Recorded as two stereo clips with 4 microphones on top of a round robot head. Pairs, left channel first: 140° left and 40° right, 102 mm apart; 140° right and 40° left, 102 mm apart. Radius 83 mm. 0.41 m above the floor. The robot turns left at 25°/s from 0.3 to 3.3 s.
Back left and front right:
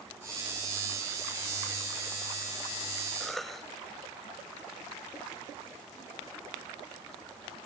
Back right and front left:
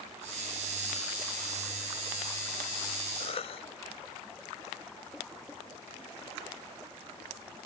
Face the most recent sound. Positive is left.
turn(degrees=-130)